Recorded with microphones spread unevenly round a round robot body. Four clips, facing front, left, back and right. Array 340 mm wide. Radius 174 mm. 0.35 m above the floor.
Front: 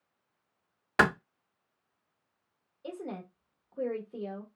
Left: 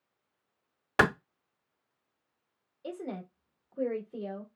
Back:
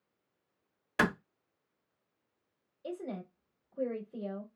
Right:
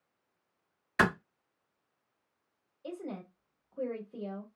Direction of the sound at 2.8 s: 85° left.